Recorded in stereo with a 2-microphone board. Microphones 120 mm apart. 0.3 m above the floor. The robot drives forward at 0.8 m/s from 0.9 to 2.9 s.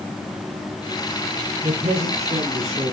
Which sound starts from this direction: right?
A man speaking, at 1.6 s.